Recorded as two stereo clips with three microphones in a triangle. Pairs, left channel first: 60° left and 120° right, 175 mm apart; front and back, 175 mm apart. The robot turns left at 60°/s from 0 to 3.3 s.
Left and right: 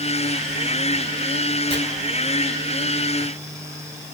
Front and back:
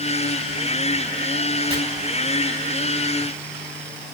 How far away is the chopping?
About 3 m.